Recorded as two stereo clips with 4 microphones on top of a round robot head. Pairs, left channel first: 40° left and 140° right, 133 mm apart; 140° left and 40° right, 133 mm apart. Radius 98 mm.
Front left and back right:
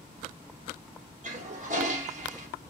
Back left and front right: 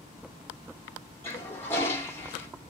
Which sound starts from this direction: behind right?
A toilet flushing, at 1.2 s.